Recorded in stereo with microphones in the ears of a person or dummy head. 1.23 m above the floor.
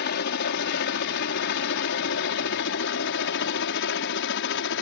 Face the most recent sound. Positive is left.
turn(degrees=60)  # may be behind; listen again after turning